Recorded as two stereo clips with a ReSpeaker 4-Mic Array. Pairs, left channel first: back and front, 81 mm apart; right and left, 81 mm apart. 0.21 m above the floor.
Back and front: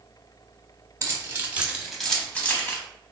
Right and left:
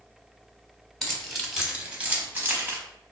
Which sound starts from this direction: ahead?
Keys jangling, at 1.0 s.